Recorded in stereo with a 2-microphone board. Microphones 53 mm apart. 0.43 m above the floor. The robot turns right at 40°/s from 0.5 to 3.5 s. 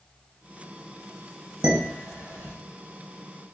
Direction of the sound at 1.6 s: 15° right (ahead or behind).